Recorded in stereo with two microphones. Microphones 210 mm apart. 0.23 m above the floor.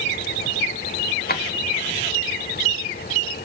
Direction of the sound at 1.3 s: 45° left (ahead or behind).